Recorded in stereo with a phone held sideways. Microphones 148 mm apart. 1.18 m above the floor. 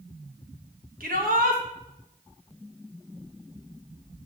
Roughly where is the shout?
Right.